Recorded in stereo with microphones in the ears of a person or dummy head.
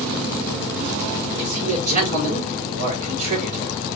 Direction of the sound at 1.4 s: 50° right (ahead or behind).